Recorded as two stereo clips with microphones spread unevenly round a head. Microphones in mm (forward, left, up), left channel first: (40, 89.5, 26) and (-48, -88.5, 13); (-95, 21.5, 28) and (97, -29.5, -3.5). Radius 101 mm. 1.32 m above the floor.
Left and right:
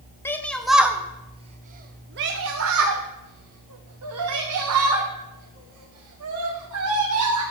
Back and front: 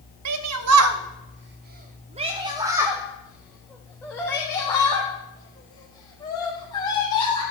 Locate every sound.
0.2 s a shout: 15° right, 1.1 m; by 7.4 s 130° right, 3.5 m